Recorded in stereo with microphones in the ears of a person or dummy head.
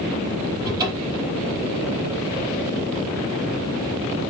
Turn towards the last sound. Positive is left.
turn(degrees=-25)  # may be behind; listen again after turning